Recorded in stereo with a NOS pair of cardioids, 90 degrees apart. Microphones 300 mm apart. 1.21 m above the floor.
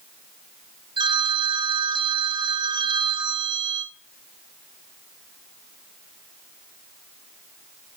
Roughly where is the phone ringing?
Ahead.